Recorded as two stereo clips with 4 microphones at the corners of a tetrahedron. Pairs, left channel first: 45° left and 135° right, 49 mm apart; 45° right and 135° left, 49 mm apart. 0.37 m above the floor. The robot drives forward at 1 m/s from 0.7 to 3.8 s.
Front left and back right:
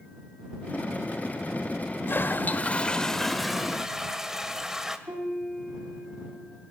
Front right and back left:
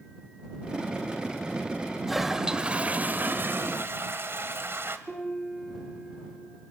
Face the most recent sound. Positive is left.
turn(degrees=-135)